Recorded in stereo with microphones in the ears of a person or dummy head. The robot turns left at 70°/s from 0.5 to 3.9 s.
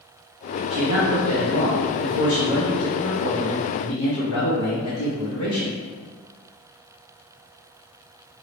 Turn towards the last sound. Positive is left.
turn(degrees=105)